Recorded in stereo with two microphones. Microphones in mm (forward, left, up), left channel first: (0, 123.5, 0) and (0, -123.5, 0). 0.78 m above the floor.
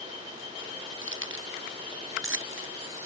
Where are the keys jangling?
55° right (ahead or behind).